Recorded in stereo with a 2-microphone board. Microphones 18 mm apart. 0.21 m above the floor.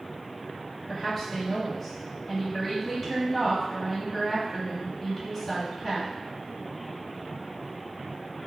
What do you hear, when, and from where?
0.9 s a woman speaking: 15° left (ahead or behind), 1.0 m